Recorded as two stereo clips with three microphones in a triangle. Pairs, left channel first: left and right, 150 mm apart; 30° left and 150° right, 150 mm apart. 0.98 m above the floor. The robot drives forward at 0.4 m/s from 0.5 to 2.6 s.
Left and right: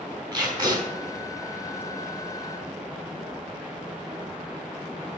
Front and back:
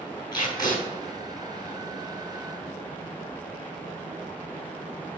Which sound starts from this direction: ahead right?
Tape being pulled, at 0.3 s.